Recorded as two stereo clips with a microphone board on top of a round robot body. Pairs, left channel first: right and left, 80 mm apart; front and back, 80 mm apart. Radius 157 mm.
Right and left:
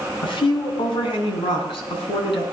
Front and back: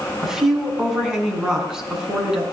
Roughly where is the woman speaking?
Right.